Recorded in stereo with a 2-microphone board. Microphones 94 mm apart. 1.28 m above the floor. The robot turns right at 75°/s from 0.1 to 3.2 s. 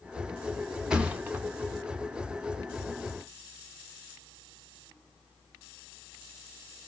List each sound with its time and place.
0.9 s a thud: 10° right (ahead or behind), 0.6 m; by 1.4 s 20° right (ahead or behind), 0.6 m